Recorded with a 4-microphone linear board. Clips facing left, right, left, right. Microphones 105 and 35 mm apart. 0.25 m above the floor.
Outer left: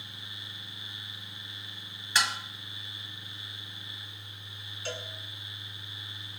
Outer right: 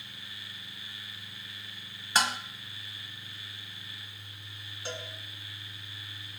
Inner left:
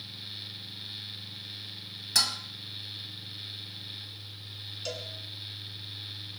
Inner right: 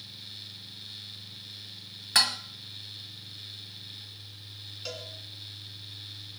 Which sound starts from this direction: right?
Dishes clattering, at 2.1 s.